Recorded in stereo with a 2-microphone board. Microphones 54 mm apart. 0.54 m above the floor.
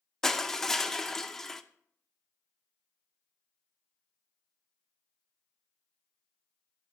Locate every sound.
0.2 s crushing: 10° left (ahead or behind), 0.5 m